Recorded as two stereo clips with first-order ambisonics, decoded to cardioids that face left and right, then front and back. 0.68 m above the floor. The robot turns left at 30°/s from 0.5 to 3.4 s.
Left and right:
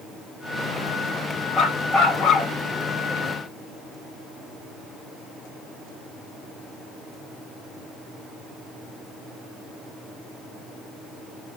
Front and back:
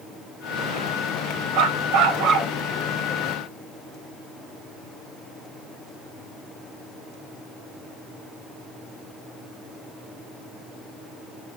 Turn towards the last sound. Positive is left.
turn(degrees=110)